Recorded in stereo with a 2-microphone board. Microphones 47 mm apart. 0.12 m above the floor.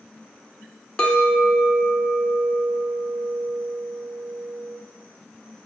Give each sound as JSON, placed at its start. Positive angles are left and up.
{"t": 1.0, "sound": "a clink", "side_deg": 20, "distance_m": 0.7}